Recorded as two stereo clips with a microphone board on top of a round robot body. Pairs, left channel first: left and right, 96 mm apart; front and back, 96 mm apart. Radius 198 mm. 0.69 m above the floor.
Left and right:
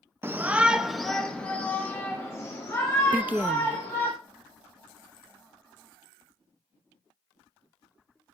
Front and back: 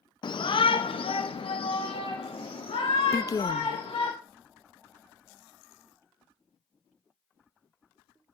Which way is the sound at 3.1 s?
25° right.